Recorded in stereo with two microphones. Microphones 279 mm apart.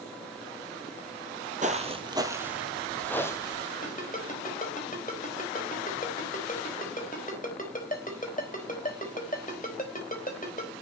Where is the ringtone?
30° left (ahead or behind), 4 m.